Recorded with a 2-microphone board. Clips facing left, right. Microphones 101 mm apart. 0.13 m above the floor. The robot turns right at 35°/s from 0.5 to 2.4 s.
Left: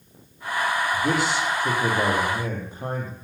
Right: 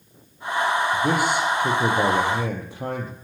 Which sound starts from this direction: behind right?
A man speaking, at 0.9 s.